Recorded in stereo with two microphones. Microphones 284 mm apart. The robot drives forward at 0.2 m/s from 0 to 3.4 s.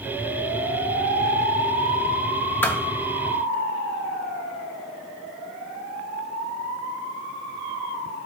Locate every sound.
2.6 s a thud: 5° left (ahead or behind), 1.3 m